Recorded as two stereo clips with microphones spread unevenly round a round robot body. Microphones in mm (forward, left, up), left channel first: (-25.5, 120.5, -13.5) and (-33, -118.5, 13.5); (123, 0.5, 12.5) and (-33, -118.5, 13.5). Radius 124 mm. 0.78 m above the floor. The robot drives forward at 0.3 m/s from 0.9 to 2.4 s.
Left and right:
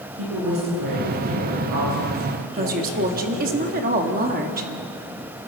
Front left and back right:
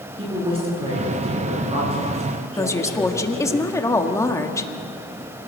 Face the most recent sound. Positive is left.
turn(degrees=-35)